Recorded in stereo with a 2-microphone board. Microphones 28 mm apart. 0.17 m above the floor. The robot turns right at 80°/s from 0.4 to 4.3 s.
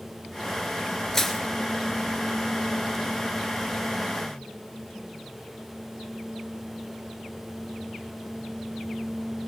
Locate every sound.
1.1 s crushing: 15° left (ahead or behind), 2 m; by 1.4 s 5° right (ahead or behind), 2 m